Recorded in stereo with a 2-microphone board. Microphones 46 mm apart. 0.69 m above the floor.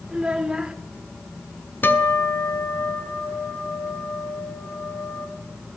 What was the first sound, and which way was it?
A child speaking, 20° right (ahead or behind).